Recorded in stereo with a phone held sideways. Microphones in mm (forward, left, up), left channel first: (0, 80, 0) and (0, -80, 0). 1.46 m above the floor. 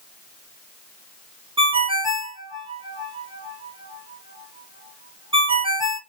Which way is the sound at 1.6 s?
30° right (ahead or behind).